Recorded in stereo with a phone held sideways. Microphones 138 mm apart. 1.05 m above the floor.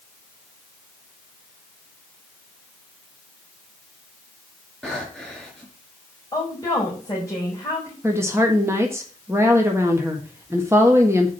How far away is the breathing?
About 4 m.